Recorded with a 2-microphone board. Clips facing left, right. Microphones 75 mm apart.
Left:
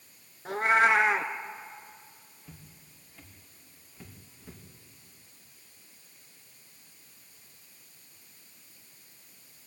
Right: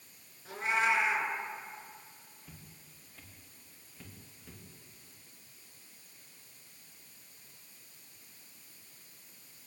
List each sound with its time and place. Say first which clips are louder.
0.5 s a cat meowing: left 7 dB; 55° left (ahead or behind), 1.4 m
2.4 s footsteps: left 3 dB; centre (ahead or behind), 4.5 m; by 4.6 s 15° left (ahead or behind), 4.5 m